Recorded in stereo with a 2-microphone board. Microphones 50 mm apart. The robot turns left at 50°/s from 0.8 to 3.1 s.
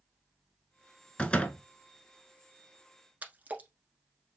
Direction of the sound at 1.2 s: 20° left (ahead or behind).